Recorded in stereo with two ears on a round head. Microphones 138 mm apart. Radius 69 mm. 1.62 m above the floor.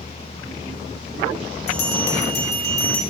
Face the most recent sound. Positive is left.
turn(degrees=75)  # may be behind; listen again after turning